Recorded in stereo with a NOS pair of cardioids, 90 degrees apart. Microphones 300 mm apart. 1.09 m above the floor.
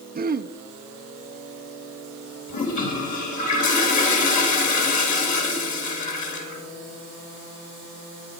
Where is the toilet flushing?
60° left, 4.5 m.